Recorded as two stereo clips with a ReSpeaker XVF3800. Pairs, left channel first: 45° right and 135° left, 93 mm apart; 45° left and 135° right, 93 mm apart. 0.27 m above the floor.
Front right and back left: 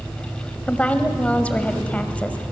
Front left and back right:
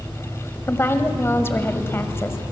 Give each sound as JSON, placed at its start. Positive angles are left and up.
{"t": 0.7, "sound": "a woman speaking", "azimuth_deg": 15, "distance_m": 1.3}